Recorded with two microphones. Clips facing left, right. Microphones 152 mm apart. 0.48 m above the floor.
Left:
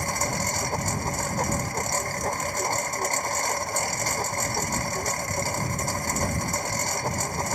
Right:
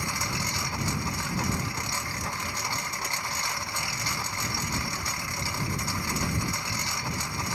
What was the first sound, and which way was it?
A lawn mower, 45° left (ahead or behind).